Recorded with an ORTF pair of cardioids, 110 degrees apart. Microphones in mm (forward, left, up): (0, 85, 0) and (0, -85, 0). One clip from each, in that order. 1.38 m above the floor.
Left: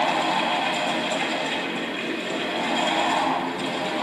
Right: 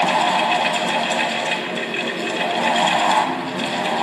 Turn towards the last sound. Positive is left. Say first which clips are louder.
# right 5 dB
turn(degrees=-60)